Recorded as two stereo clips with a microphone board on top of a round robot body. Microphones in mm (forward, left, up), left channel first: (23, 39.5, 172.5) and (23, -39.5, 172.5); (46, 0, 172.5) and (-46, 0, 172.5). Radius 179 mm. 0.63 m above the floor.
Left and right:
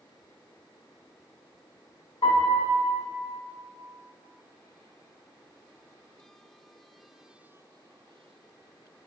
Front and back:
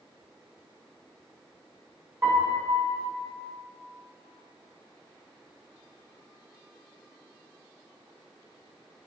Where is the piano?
115° left, 2.5 m.